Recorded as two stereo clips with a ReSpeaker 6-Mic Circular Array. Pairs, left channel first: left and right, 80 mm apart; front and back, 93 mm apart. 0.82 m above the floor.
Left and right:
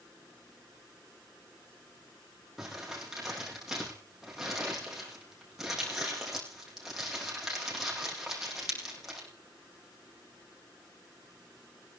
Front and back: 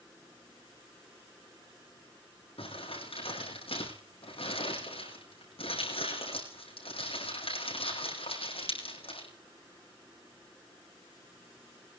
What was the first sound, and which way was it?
Crumpling, 5° right.